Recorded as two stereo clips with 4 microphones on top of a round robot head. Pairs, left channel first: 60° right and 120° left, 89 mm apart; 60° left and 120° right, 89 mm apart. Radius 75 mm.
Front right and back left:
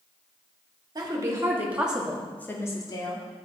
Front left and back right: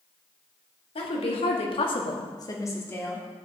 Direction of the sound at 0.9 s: 70° left.